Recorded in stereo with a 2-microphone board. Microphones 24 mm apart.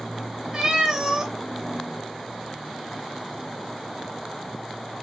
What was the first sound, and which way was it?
A cat meowing, 35° right (ahead or behind).